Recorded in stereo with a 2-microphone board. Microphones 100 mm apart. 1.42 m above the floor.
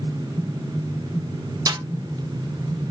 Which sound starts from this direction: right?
A snare drum, at 1.7 s.